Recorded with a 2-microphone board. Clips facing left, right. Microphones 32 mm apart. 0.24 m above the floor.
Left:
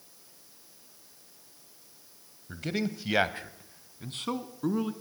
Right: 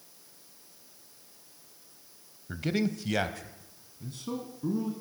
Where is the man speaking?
10° right (ahead or behind), 1.0 m; by 4.9 s 65° left (ahead or behind), 2.5 m.